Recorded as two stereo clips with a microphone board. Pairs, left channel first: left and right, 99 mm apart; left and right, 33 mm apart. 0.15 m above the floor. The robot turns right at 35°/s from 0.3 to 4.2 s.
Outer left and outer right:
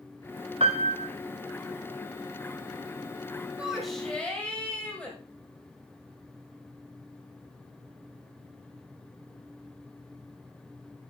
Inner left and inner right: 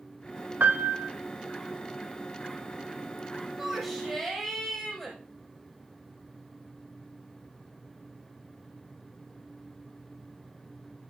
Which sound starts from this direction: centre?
A shout, at 3.6 s.